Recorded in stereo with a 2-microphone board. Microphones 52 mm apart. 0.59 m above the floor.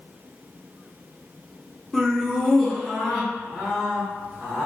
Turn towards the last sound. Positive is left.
turn(degrees=-5)  # may be behind; listen again after turning